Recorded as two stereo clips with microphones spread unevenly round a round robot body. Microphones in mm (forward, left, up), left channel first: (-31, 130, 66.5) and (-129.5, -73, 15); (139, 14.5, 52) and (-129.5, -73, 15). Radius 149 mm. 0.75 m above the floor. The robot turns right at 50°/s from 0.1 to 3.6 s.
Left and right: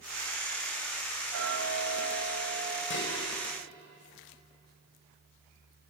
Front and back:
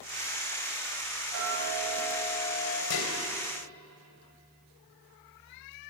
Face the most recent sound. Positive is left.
turn(degrees=45)